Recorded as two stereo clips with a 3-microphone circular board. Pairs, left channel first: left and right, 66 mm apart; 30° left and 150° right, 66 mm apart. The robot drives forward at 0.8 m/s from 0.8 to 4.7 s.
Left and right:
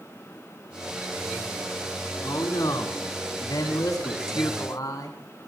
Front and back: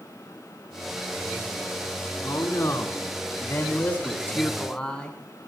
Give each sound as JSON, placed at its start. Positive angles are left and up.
{"t": 2.2, "sound": "a man speaking", "azimuth_deg": 65, "distance_m": 3.0}